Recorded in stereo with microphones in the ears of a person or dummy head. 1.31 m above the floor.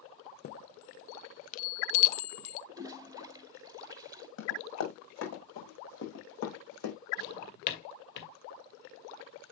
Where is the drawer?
55° left (ahead or behind), 2 m.